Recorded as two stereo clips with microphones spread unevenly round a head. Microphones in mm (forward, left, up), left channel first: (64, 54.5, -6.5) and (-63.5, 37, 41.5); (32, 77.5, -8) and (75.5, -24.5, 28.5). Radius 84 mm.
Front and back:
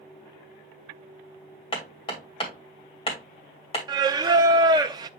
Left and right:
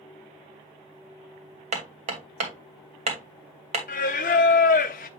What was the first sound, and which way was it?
Hammering, 60° right.